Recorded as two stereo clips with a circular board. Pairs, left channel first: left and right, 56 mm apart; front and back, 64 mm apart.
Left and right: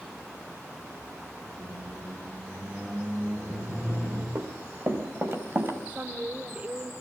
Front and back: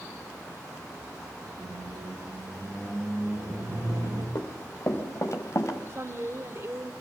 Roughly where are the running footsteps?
Ahead right.